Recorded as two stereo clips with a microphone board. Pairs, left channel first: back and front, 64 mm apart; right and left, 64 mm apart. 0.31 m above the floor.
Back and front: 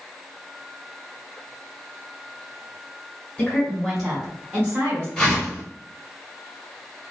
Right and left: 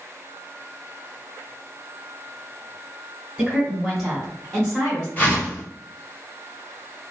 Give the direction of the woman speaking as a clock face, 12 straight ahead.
7 o'clock.